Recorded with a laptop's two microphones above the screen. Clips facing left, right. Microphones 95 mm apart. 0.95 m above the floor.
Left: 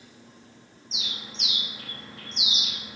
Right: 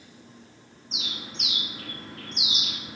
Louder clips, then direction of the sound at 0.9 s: Right 2 dB; 55° right (ahead or behind).